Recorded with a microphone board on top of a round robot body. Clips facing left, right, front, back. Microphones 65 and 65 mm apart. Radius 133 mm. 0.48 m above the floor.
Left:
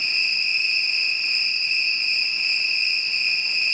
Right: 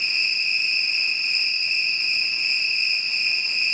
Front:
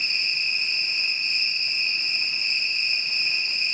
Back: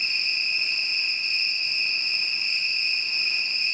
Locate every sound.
0.0 s an insect: 15° right, 2.5 m